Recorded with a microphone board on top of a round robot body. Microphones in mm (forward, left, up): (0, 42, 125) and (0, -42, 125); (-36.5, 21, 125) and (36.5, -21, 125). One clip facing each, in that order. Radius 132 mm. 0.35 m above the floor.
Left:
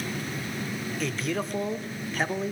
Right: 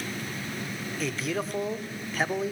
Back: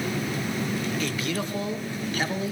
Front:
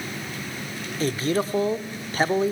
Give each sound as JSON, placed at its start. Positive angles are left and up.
{"t": 1.0, "sound": "a man speaking", "azimuth_deg": -5, "distance_m": 1.4}